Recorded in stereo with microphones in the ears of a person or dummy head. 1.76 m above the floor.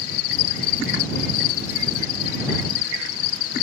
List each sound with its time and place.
0.0 s an insect: 80° left